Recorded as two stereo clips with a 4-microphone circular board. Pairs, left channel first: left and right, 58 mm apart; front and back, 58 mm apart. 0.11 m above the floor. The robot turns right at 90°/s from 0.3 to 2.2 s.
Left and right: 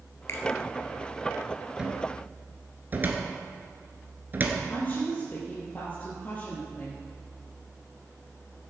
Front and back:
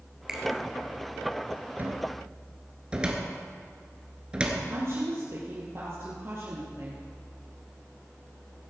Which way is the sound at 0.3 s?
105° left.